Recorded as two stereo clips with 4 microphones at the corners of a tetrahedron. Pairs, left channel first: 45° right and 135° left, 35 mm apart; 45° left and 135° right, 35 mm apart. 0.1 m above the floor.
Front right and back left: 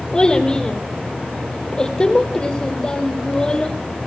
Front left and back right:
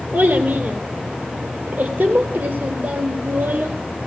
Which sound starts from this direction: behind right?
A child speaking, at 0.1 s.